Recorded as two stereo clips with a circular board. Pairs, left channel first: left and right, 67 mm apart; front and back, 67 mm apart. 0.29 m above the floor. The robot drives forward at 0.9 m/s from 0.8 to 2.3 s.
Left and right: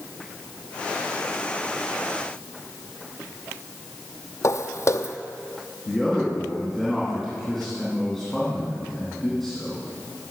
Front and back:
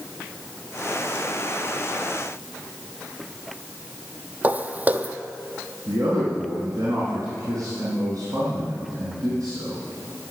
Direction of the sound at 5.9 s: 170° left.